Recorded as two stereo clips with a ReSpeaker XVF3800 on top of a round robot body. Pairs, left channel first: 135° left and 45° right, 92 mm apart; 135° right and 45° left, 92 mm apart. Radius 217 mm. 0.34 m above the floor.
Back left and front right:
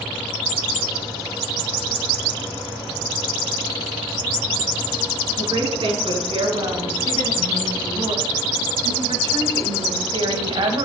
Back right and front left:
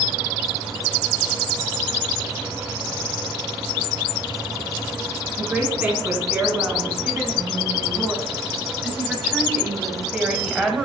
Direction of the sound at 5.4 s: 25° right.